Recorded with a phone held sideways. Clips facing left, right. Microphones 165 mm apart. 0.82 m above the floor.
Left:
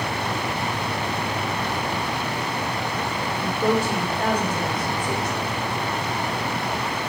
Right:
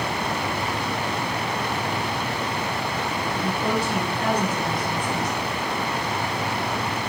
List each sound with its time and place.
3.3 s a woman speaking: 60° left (ahead or behind), 2.5 m